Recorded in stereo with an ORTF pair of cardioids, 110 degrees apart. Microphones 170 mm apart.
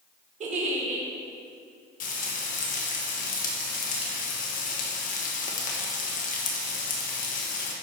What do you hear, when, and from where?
0.4 s a giggle: 45° right, 1.9 m
2.0 s frying: 55° left, 1.9 m